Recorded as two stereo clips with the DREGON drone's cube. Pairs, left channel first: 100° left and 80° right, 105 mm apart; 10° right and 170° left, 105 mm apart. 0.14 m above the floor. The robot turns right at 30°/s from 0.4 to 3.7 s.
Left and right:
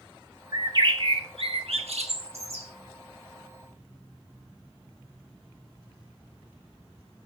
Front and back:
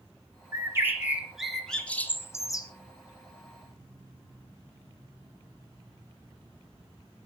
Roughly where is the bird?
Behind right.